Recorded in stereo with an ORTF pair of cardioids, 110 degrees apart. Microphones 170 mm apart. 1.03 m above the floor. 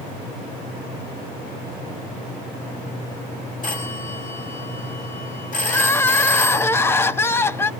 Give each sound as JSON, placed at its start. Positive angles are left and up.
{"t": 3.6, "sound": "a phone ringing", "azimuth_deg": 50, "distance_m": 5.5}
{"t": 5.7, "sound": "crying", "azimuth_deg": 15, "distance_m": 0.6}